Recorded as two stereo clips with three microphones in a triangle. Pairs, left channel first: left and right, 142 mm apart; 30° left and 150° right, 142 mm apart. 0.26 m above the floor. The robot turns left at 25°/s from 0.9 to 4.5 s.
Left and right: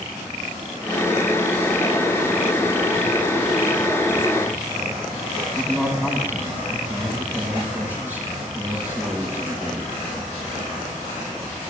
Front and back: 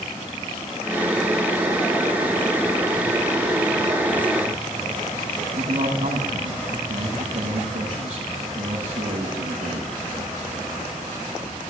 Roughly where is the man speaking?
Behind.